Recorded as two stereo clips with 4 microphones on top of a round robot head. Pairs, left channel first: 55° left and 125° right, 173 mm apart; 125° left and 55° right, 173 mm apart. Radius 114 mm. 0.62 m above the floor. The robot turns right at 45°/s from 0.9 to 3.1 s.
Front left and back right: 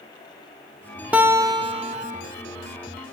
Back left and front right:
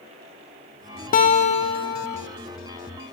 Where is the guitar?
150° left, 1.4 m; by 2.2 s 160° right, 1.4 m.